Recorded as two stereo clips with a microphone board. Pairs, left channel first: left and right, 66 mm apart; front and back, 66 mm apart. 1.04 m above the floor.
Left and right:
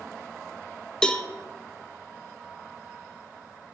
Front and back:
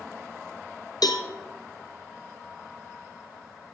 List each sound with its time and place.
1.0 s a cowbell: 10° left, 0.6 m